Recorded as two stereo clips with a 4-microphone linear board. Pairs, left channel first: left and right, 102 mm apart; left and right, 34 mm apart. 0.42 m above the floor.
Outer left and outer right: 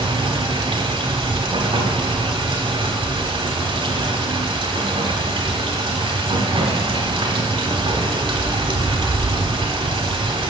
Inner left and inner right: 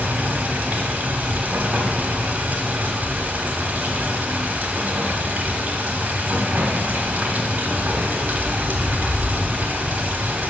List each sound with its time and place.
0.0 s running water: 65° right (ahead or behind), 1.2 m